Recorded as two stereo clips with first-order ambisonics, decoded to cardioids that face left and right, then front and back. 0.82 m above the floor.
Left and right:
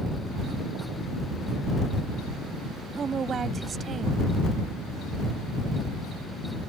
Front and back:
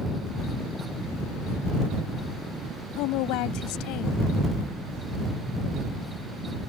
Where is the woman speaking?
25° right.